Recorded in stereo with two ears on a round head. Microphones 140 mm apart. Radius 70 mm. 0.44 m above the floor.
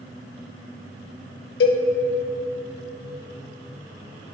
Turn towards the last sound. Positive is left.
turn(degrees=75)  # may be behind; listen again after turning